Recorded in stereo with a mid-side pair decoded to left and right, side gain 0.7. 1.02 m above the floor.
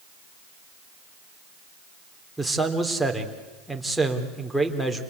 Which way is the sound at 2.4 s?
Straight ahead.